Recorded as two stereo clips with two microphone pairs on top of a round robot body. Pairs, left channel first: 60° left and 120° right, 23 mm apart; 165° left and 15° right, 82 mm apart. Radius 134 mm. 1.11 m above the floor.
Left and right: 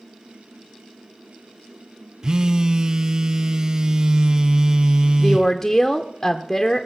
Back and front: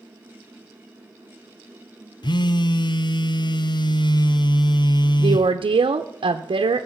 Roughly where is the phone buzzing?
Behind.